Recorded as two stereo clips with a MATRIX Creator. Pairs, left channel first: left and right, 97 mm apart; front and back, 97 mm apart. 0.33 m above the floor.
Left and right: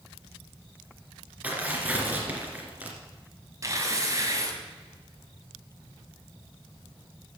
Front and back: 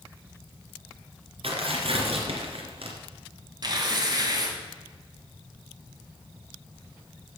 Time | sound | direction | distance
1.4 | tearing paper | 165° right | 2.5 m
3.6 | tearing paper | 145° right | 2 m